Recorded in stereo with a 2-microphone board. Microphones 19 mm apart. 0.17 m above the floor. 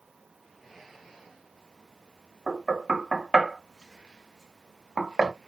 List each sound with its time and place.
2.5 s knocking: 20° right (ahead or behind), 0.9 m